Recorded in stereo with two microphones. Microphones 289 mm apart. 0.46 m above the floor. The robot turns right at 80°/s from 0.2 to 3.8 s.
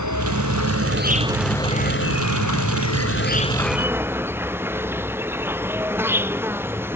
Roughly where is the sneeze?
No sneeze in this recording.